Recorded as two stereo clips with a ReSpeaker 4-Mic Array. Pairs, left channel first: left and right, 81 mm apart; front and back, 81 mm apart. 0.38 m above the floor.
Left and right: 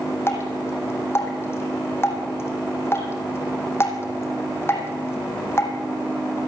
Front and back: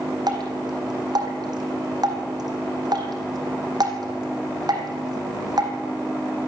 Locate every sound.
0.3 s dripping: 150° left, 3.5 m